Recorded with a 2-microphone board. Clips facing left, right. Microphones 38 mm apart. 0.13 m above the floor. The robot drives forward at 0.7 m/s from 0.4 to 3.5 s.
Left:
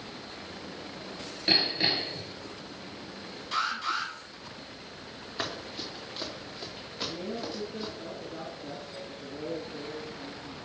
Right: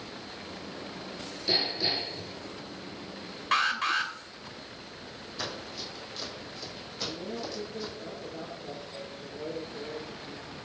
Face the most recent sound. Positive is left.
turn(degrees=55)  # may be behind; listen again after turning